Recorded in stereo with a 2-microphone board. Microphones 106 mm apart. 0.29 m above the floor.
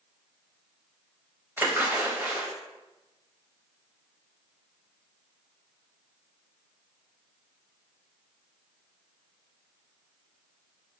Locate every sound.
1.6 s a splash: 20° right (ahead or behind), 0.7 m